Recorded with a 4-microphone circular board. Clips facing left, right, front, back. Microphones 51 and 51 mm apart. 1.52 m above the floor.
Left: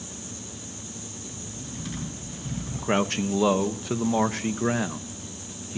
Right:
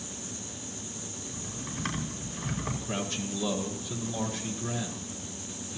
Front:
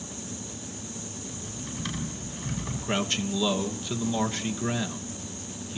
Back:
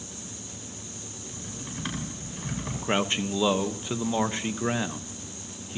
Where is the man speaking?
115° left, 1.1 m.